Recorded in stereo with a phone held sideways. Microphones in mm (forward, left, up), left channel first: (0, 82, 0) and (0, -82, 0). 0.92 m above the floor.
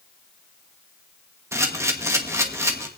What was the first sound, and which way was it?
A camera shutter, 15° right (ahead or behind).